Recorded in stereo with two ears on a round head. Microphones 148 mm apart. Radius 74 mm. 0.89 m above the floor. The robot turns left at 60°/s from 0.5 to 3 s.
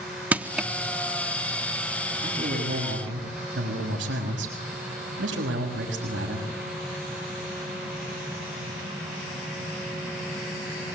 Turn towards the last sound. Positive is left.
turn(degrees=-85)